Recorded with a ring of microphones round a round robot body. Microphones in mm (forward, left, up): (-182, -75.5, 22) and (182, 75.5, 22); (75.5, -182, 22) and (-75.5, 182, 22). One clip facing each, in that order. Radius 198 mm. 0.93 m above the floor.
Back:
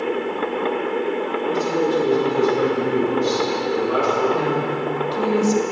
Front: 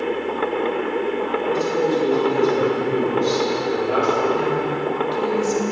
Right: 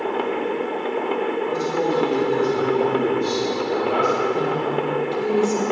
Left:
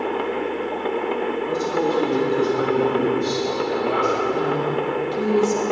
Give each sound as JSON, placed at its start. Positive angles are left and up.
{"t": 1.4, "sound": "a man speaking", "azimuth_deg": 130, "distance_m": 4.5}
{"t": 4.3, "sound": "a woman speaking", "azimuth_deg": 180, "distance_m": 2.0}